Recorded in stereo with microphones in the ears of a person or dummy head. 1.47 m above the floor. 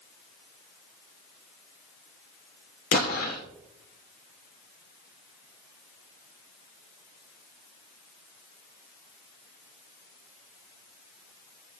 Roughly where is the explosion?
Left.